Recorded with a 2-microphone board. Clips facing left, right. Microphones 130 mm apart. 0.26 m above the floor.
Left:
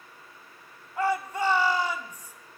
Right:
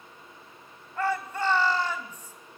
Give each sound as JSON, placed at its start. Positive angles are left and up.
{"t": 1.0, "sound": "a shout", "side_deg": 15, "distance_m": 1.7}